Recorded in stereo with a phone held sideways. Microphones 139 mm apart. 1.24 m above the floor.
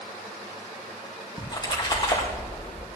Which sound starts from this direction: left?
A splash, at 1.4 s.